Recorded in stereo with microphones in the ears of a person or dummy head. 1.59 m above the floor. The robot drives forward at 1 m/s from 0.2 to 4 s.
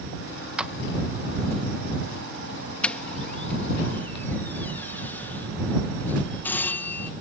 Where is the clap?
5° right (ahead or behind).